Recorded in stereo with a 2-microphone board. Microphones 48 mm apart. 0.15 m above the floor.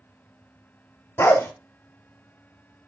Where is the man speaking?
No man speaking in this recording.